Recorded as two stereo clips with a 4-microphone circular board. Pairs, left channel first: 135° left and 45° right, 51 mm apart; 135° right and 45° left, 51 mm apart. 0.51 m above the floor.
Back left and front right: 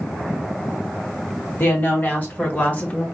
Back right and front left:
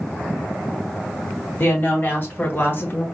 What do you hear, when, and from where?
1.6 s a woman speaking: straight behind, 2.5 m; by 3.0 s 170° right, 1.3 m